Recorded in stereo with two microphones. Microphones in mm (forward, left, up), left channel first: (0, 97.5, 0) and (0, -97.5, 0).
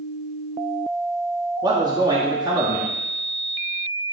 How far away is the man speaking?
About 1.3 m.